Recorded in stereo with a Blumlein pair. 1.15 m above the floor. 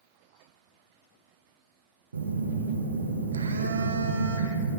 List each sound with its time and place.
2.1 s a phone buzzing: 70° right, 0.6 m